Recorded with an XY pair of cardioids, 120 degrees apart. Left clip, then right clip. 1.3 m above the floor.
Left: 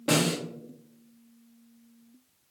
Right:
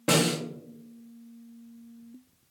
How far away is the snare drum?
About 1.2 m.